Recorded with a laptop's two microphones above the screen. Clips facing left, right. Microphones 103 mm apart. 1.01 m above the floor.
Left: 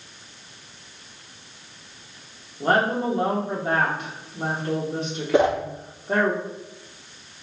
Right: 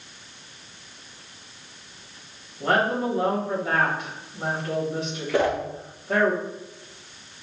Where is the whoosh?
20° left (ahead or behind), 0.5 m.